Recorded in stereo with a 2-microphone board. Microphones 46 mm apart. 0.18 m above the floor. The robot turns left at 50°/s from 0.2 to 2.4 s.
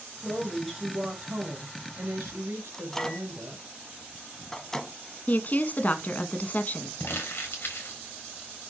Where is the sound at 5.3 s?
40° left (ahead or behind), 1.5 m.